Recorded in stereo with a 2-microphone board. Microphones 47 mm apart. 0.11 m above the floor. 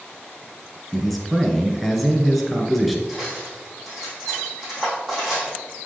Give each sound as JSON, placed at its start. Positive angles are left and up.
{"t": 0.9, "sound": "a man speaking", "side_deg": 0, "distance_m": 1.2}
{"t": 3.1, "sound": "cutlery clinking", "side_deg": -10, "distance_m": 3.0}